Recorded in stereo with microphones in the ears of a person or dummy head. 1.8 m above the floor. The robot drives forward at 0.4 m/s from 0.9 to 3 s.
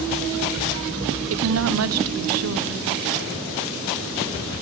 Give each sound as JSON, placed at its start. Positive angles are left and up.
{"t": 1.3, "sound": "a woman speaking", "side_deg": -80, "distance_m": 1.3}